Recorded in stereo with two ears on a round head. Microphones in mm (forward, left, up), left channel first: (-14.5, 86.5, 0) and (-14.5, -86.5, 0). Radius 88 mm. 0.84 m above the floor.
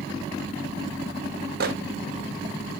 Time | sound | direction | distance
1.6 | a microwave | 50° right (ahead or behind) | 0.7 m